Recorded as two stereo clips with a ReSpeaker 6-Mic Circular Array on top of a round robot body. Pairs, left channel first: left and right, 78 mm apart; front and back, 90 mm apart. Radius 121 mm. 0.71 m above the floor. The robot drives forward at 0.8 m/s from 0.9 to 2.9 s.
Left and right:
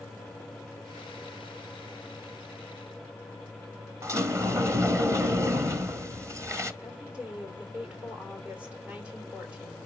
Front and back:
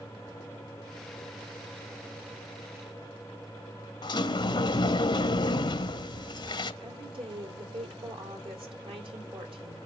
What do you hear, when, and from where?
4.0 s a sliding door: 40° right, 1.4 m
6.8 s a woman speaking: 165° right, 3 m